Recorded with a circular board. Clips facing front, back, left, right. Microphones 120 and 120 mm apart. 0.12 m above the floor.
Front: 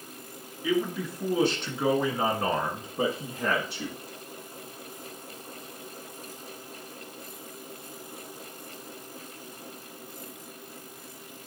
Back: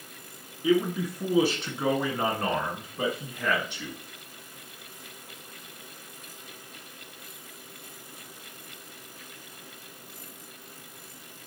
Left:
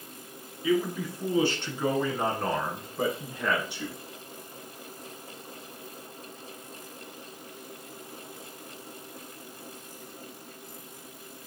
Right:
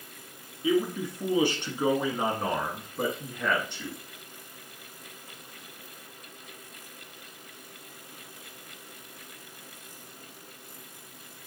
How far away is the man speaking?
About 1.8 m.